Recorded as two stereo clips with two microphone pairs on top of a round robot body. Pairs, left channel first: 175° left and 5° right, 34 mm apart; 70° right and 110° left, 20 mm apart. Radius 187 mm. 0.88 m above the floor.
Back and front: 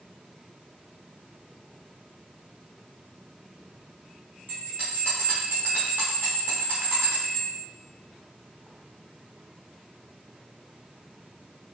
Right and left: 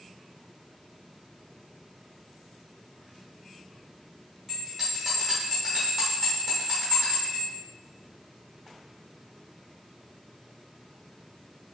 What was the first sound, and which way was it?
A bell, 15° left.